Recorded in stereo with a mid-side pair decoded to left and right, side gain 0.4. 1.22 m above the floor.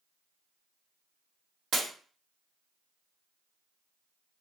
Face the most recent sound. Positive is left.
turn(degrees=-65)